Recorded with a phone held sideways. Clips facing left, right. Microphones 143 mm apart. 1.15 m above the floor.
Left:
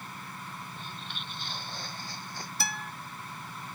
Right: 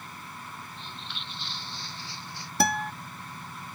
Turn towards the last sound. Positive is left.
turn(degrees=-65)  # may be behind; listen again after turning